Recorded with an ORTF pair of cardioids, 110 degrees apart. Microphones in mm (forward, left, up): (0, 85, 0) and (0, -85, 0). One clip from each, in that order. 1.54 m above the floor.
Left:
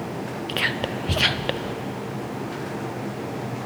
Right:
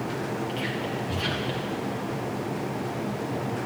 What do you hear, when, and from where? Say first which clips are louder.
0.5 s whispering: left 5 dB; 60° left, 0.5 m